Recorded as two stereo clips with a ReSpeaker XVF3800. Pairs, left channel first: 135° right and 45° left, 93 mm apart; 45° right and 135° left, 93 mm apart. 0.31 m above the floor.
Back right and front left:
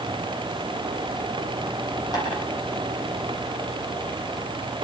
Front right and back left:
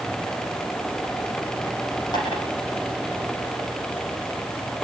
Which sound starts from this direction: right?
Tapping, at 2.1 s.